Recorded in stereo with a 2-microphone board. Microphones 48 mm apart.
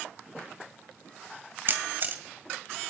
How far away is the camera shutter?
About 1.7 m.